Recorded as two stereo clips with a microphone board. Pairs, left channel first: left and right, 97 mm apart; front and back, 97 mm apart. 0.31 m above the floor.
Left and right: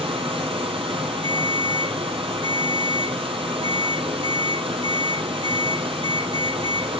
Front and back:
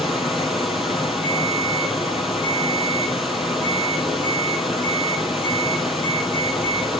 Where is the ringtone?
125° left, 5 m.